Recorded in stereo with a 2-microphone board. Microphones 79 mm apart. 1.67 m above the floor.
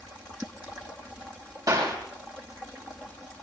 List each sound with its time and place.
1.7 s a clap: 50° right (ahead or behind), 7 m